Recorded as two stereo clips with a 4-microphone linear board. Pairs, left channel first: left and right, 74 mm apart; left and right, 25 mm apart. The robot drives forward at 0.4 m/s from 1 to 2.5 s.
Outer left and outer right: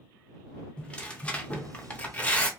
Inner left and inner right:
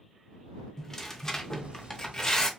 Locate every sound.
0.8 s tearing paper: 15° left (ahead or behind), 0.6 m; by 2.5 s 20° left (ahead or behind), 0.6 m